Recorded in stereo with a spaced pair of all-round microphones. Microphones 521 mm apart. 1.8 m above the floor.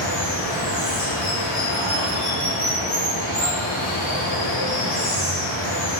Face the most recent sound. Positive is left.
turn(degrees=15)  # may be behind; listen again after turning